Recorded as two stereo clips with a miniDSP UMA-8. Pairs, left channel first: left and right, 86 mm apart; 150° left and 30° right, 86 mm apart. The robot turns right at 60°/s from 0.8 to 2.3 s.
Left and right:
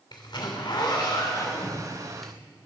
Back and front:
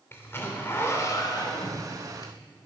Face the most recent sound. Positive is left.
turn(degrees=-175)